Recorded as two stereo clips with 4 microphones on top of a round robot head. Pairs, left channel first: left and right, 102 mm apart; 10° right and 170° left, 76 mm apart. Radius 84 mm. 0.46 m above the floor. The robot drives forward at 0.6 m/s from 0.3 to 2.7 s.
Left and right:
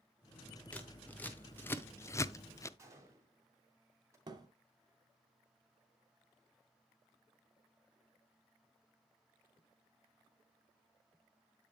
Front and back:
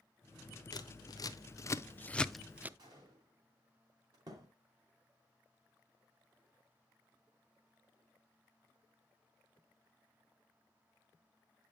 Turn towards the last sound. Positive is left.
turn(degrees=-140)